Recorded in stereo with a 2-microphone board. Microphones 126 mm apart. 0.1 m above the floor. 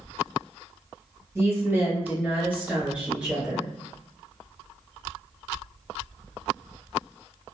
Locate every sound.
1.4 s a woman speaking: 20° right (ahead or behind), 1.4 m; by 3.7 s 5° right (ahead or behind), 1.7 m